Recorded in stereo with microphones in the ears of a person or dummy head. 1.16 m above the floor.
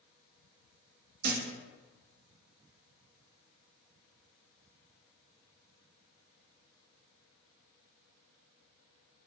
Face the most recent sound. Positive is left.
turn(degrees=-50)  # may be behind; listen again after turning